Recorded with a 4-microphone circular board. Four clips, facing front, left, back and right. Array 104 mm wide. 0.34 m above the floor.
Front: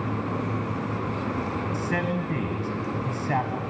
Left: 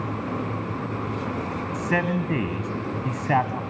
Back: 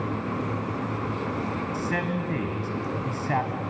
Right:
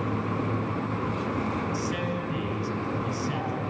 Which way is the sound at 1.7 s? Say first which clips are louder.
Left 5 dB, front 1 dB; 90° left.